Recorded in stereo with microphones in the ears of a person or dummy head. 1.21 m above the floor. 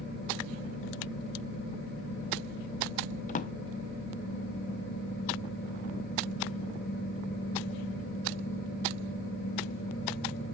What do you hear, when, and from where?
3.3 s a drawer: 45° left (ahead or behind), 0.8 m